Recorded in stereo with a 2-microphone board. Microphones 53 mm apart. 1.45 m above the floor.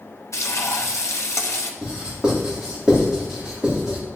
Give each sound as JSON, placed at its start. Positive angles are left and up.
{"t": 0.3, "sound": "frying", "side_deg": 65, "distance_m": 1.0}
{"t": 1.8, "sound": "writing", "side_deg": -15, "distance_m": 3.5}